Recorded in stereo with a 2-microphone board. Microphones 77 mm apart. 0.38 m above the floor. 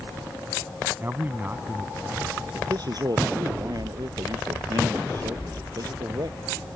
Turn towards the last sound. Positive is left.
turn(degrees=-55)  # may be behind; listen again after turning